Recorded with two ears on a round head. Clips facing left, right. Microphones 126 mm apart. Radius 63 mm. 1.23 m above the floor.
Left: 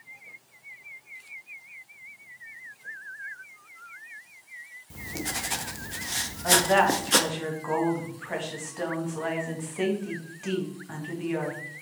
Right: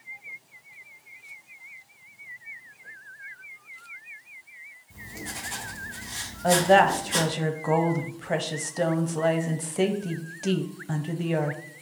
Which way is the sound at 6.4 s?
40° right (ahead or behind).